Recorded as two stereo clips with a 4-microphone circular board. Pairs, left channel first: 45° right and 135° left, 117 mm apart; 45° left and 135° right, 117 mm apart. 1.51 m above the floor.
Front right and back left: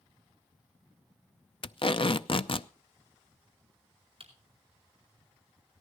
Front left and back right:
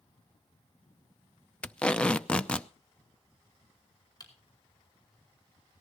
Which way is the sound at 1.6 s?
30° right.